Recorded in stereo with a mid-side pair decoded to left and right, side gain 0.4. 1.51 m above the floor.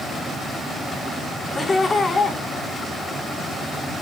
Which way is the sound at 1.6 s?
30° left.